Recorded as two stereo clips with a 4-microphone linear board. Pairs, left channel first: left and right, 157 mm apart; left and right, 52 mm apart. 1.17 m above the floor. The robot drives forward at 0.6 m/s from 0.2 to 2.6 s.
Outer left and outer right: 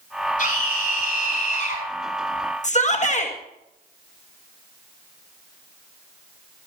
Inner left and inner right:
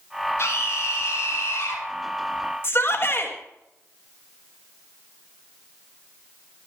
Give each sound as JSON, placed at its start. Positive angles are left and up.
{"t": 0.4, "sound": "a scream", "side_deg": 60, "distance_m": 7.0}
{"t": 2.6, "sound": "a shout", "side_deg": 50, "distance_m": 1.9}